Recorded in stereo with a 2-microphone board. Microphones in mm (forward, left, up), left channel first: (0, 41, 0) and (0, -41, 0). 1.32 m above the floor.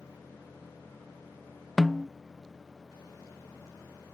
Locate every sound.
1.8 s a snare drum: centre (ahead or behind)